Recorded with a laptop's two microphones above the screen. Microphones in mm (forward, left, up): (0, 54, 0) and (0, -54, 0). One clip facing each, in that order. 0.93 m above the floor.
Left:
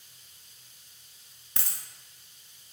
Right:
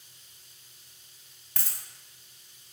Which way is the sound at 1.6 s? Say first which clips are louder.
Left 1 dB; 25° left (ahead or behind).